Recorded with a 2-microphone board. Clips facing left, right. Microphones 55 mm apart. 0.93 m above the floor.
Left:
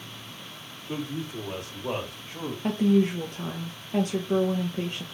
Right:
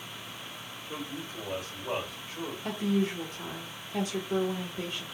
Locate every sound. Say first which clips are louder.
0.9 s a man speaking: left 6 dB; 75° left (ahead or behind), 1.5 m; by 2.5 s 65° left (ahead or behind), 1.9 m
2.6 s a woman speaking: left 7 dB; 50° left (ahead or behind), 0.6 m